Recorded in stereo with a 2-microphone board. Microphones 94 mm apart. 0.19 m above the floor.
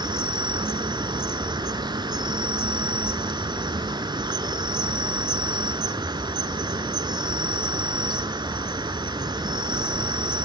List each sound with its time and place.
0.0 s an insect: 50° right (ahead or behind), 0.8 m